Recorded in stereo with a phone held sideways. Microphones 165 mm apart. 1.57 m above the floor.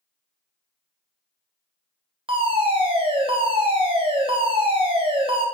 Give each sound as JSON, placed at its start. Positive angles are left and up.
{"t": 2.3, "sound": "a fire alarm", "side_deg": -35, "distance_m": 0.8}